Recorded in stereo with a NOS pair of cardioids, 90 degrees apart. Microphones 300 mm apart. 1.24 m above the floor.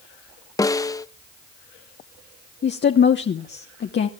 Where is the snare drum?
10° left, 0.6 m.